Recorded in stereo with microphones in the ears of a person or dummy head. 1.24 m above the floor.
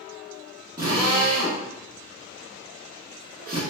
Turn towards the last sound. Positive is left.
turn(degrees=-20)  # may be behind; listen again after turning